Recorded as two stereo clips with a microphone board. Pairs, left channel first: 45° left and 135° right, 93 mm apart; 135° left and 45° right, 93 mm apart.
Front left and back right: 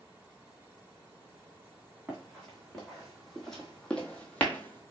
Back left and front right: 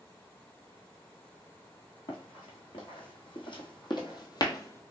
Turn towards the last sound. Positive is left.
turn(degrees=95)